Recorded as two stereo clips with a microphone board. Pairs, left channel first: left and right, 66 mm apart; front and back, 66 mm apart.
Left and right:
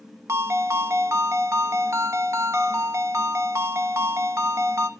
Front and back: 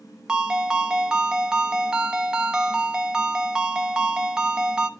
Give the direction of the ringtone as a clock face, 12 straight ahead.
3 o'clock.